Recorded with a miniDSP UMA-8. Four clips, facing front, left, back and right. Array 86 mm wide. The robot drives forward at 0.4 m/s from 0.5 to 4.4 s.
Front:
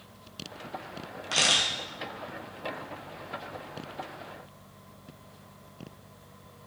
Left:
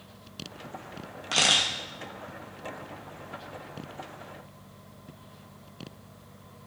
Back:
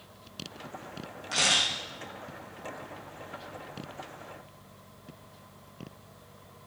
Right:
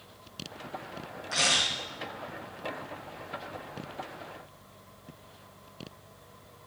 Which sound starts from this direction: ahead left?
A camera shutter, at 1.3 s.